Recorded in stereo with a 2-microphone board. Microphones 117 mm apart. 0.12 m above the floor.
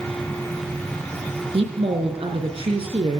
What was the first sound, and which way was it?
A woman speaking, 50° right (ahead or behind).